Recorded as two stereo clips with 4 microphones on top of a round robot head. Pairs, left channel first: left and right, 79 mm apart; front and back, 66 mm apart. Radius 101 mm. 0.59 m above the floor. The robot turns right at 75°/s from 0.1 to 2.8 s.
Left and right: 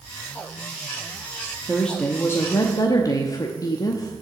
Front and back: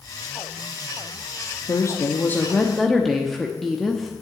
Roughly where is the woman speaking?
Ahead.